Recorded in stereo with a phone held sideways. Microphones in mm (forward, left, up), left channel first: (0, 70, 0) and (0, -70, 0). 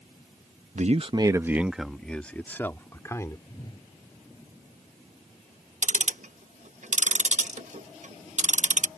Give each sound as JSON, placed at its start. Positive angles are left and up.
{"t": 0.8, "sound": "a man speaking", "side_deg": -60}
{"t": 3.5, "sound": "a whoosh", "side_deg": 30}
{"t": 5.8, "sound": "ticking", "side_deg": -60}